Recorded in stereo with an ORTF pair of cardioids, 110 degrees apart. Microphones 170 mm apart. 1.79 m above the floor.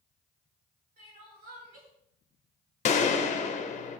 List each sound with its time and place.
1.0 s crying: 65° right, 3 m
2.9 s a gunshot: 45° left, 0.7 m